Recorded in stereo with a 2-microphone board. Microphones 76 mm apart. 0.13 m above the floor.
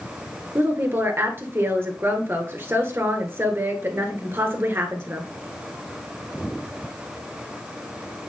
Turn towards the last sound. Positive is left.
turn(degrees=-30)  # may be behind; listen again after turning